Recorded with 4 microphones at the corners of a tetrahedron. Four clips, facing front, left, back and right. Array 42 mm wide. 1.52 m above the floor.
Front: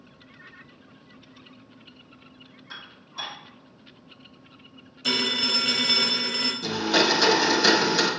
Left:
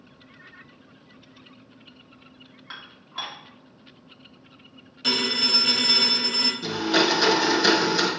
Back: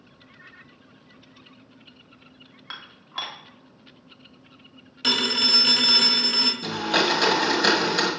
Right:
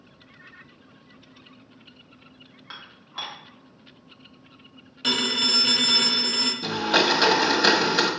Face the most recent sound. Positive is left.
turn(degrees=-120)